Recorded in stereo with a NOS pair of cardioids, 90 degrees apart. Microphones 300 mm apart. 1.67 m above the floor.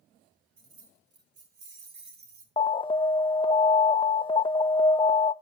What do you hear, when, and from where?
0.6 s keys jangling: 45° right, 3 m; by 2.5 s 75° right, 3 m
2.6 s an alarm: 20° left, 0.5 m